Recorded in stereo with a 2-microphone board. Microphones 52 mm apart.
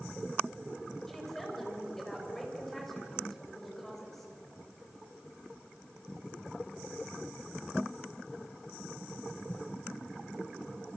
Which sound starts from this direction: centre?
A woman speaking, at 1.1 s.